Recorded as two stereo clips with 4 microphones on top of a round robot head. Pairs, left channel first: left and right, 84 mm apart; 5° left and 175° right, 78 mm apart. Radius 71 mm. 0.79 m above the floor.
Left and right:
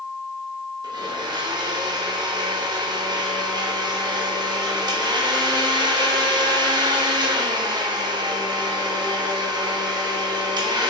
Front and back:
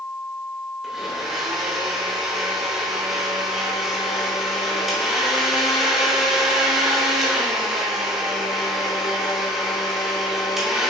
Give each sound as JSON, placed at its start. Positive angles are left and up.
{"t": 0.8, "sound": "a blender", "azimuth_deg": -90, "distance_m": 1.3}